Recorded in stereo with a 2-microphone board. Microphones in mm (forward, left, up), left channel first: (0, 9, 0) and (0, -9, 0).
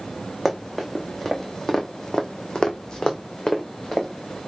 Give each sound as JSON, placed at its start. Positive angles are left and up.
{"t": 0.5, "sound": "running footsteps", "side_deg": 0, "distance_m": 1.1}